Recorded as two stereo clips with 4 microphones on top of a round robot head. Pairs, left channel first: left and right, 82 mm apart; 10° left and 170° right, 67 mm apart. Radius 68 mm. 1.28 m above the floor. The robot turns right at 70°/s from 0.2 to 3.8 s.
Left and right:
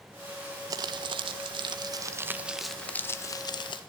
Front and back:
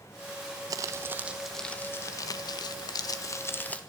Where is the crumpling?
135° right, 1.5 m; by 3.8 s 80° left, 1.5 m.